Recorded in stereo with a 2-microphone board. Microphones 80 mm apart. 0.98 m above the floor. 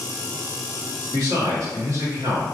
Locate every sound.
1.1 s a man speaking: 45° right (ahead or behind), 1.7 m